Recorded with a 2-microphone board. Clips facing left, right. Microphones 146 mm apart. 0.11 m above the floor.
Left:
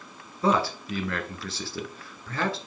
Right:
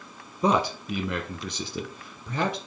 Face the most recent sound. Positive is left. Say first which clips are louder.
# right 1 dB
turn(degrees=-20)  # may be behind; listen again after turning